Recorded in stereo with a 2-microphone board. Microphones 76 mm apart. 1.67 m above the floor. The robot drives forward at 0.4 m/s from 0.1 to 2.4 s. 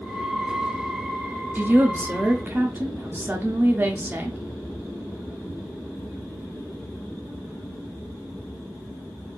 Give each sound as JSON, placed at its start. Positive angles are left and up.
{"t": 1.6, "sound": "a woman speaking", "side_deg": -25, "distance_m": 0.6}